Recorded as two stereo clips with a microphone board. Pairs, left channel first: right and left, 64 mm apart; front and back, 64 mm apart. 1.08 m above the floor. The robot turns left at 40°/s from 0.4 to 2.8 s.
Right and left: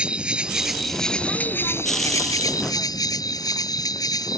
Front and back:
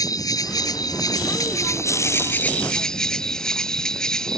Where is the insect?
15° left; by 4.4 s 80° right.